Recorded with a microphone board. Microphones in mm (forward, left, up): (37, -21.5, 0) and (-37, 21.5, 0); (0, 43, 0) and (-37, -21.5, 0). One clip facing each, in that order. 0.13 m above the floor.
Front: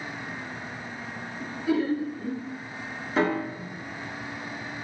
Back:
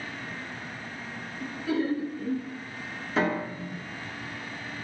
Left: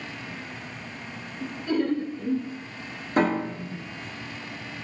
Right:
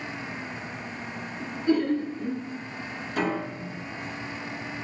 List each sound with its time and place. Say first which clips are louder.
1.4 s laughter: front 2 dB, right 2 dB; 95° right, 1.6 m
3.2 s a piano: front 2 dB, left 5 dB; 55° left, 0.7 m